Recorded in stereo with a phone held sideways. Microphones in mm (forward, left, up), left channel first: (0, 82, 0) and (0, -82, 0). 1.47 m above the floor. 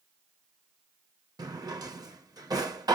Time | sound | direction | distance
1.4 | a drawer | 25° right (ahead or behind) | 0.6 m